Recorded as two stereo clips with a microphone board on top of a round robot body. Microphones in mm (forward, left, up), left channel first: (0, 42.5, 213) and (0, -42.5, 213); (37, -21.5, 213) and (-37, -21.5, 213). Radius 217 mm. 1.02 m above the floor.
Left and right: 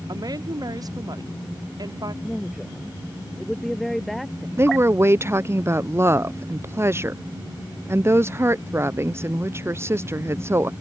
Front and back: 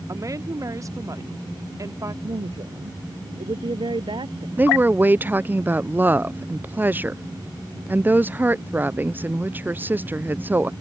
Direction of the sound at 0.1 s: 135° right.